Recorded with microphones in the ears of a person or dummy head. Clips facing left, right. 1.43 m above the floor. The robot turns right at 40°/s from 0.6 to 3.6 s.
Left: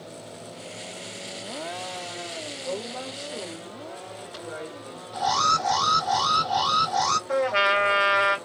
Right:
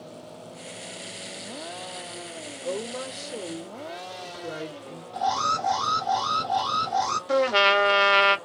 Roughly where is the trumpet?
Right.